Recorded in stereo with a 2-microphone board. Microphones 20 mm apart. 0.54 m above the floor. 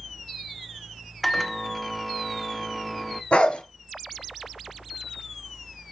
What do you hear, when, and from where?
1.2 s a microwave: 5° left (ahead or behind), 1.0 m
3.3 s a dog barking: 75° left (ahead or behind), 2.5 m